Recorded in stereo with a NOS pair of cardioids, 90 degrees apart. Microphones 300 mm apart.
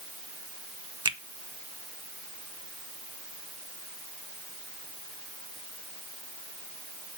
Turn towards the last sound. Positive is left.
turn(degrees=-15)